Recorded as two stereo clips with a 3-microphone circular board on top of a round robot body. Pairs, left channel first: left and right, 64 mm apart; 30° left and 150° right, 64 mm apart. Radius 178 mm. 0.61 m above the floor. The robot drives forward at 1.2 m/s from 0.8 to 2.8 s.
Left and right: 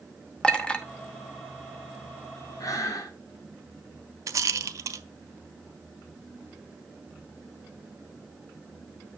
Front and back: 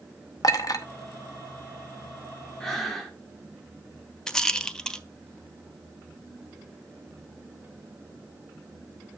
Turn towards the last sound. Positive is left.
turn(degrees=-55)